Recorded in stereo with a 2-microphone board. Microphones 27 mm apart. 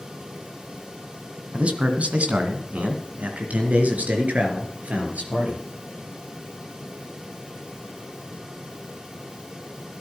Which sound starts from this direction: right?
A man speaking, at 1.5 s.